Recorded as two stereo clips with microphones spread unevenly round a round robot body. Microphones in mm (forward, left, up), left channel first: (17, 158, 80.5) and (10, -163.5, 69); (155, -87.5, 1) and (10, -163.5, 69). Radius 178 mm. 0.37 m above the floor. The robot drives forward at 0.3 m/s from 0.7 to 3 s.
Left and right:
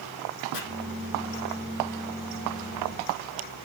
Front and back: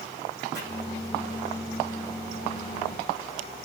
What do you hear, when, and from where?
0.5 s chopping: 120° left, 3.5 m